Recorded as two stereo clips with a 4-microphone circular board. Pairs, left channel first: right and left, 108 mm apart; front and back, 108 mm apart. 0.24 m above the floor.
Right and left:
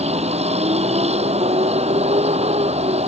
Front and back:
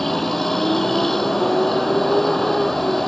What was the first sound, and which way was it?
A vehicle, 90° left.